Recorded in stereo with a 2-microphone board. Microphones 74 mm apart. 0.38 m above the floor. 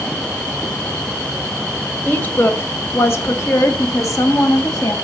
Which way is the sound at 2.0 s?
25° left (ahead or behind).